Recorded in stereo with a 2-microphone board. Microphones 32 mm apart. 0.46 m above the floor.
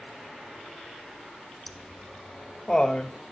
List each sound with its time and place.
1.7 s laughter: 10° left (ahead or behind), 0.8 m; by 3.1 s 25° left (ahead or behind), 1.8 m